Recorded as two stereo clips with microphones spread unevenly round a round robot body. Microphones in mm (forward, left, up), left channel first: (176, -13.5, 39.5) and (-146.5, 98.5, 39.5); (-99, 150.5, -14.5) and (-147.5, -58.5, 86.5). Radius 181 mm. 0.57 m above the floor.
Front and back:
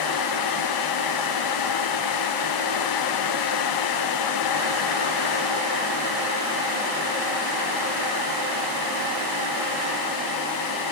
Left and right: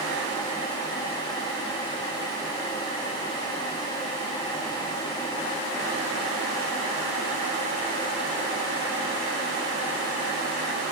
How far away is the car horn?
I don't hear a car horn.